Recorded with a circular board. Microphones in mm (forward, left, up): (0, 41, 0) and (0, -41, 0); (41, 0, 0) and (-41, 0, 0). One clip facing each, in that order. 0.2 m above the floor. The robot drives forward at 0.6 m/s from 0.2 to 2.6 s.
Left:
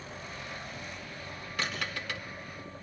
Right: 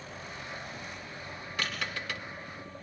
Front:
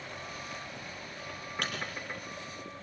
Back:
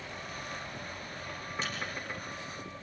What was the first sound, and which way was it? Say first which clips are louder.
A microwave: left 1 dB, front 2 dB; 25° left.